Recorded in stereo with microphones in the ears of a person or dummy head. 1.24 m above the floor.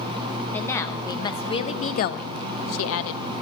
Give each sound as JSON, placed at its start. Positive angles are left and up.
{"t": 0.5, "sound": "a woman speaking", "side_deg": 5, "distance_m": 1.2}